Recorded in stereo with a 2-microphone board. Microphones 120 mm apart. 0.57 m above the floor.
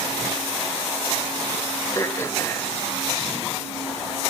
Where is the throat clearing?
25° left (ahead or behind), 2 m.